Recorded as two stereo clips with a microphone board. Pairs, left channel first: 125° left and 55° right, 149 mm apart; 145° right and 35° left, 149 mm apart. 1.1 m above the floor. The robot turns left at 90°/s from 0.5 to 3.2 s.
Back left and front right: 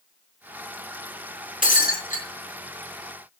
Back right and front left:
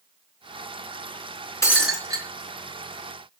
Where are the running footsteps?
No running footsteps in this recording.